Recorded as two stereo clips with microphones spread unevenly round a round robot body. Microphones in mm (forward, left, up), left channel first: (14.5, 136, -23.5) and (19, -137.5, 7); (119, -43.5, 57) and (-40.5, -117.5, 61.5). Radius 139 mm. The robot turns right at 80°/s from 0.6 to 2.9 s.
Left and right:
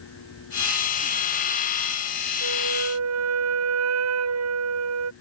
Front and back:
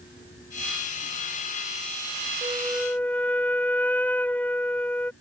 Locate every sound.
2.4 s a flute: 95° right; by 5.1 s 55° right